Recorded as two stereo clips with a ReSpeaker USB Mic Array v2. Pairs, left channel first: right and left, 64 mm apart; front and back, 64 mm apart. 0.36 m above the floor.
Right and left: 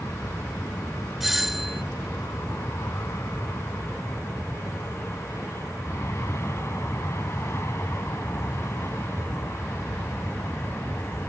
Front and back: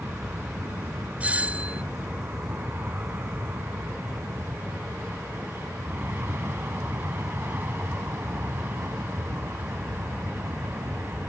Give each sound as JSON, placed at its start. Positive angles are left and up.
{"t": 0.0, "sound": "an aircraft", "azimuth_deg": -125}
{"t": 1.2, "sound": "a doorbell", "azimuth_deg": 170}